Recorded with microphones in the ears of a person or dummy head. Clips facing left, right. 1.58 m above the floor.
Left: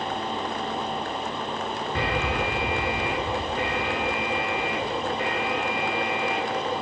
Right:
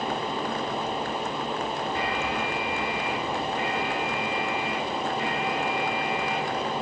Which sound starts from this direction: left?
An alarm, at 1.9 s.